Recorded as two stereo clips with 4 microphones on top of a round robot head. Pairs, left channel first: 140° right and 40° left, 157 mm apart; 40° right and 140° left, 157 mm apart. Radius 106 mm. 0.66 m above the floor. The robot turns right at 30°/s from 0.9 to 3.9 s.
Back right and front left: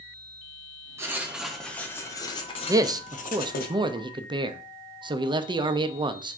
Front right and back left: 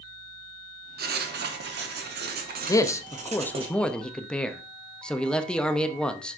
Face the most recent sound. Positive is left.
turn(degrees=35)